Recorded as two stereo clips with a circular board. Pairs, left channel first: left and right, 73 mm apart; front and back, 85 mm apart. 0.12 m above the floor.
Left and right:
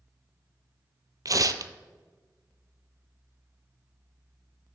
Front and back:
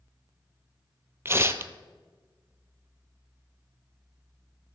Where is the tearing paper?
120° right, 0.5 m.